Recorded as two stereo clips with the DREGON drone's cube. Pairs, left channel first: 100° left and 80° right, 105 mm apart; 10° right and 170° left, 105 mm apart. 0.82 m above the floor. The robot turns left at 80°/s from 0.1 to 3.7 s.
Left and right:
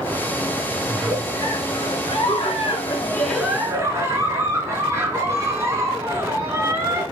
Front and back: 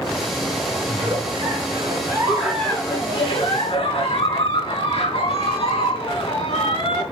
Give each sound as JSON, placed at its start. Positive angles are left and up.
{"t": 0.9, "sound": "a giggle", "azimuth_deg": -150, "distance_m": 4.0}